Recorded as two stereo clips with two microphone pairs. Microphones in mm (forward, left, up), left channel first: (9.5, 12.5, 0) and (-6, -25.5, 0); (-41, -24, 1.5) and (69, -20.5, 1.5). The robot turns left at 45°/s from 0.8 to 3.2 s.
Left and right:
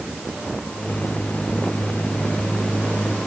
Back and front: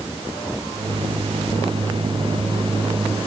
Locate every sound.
Only background noise.